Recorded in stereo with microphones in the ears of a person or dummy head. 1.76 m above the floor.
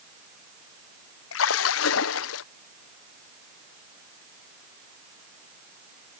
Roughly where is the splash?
Left.